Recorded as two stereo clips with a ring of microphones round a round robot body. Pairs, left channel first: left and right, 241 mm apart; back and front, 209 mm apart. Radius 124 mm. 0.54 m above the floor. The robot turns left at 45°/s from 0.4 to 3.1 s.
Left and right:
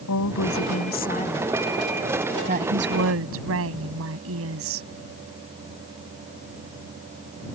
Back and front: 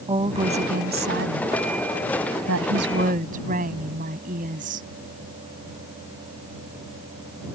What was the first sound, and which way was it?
A woman speaking, 65° left.